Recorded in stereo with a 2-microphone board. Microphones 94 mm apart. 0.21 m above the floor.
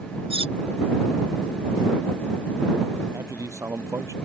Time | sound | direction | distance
0.3 | cutlery clinking | 85° right | ?
3.1 | a man speaking | 35° right (ahead or behind) | ?